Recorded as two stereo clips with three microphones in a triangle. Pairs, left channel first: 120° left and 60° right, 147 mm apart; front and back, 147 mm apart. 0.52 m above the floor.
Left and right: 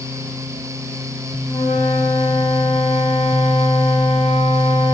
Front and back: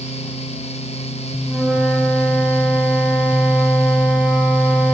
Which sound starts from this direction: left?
A flute, at 1.5 s.